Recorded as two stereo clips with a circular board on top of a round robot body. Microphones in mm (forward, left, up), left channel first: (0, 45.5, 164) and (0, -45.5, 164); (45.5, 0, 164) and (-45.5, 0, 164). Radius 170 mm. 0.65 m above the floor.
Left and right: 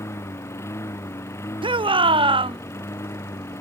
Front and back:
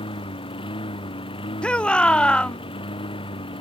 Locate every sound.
0.0 s a lawn mower: 25° left
1.6 s a shout: 80° right